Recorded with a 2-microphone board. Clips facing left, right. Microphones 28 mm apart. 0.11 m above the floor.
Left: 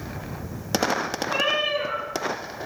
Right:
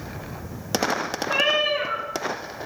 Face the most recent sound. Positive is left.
turn(degrees=-30)  # may be behind; listen again after turning